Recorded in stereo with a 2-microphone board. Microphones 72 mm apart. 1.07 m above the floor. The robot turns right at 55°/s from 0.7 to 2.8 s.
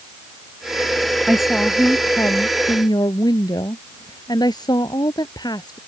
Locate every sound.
1.2 s a woman speaking: 10° right; by 5.8 s 75° left